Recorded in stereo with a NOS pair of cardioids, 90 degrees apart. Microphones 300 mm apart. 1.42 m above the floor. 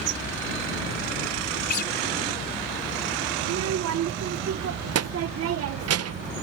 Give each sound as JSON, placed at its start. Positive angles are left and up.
{"t": 1.7, "sound": "a guitar", "azimuth_deg": 35}
{"t": 3.4, "sound": "a child speaking", "azimuth_deg": -55}